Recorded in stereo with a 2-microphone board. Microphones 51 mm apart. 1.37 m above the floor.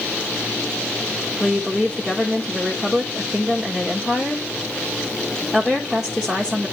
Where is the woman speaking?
15° right (ahead or behind), 1.5 m.